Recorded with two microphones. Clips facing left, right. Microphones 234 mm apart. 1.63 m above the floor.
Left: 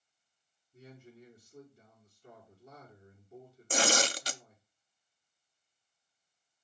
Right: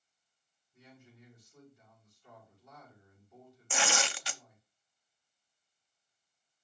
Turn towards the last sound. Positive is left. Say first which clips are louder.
# left 5 dB
turn(degrees=40)  # may be behind; listen again after turning